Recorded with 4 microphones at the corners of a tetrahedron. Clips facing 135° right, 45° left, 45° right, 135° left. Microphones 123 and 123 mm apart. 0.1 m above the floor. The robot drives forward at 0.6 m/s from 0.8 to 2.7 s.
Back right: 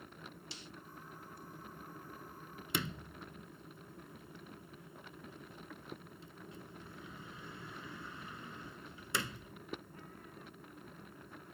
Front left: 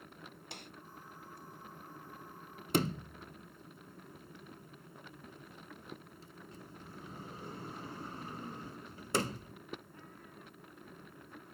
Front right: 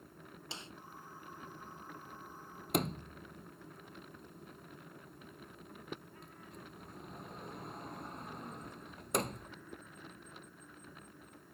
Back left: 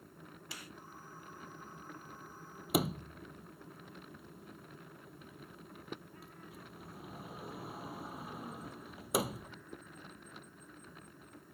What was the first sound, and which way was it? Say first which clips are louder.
A snare drum: front left 2 dB, front right 2 dB; 20° left.